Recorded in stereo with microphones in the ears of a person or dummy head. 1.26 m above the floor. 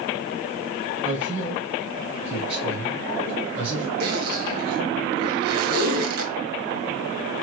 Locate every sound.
1.0 s a man speaking: 30° right (ahead or behind), 0.7 m
4.0 s a zipper: 55° right (ahead or behind), 1.2 m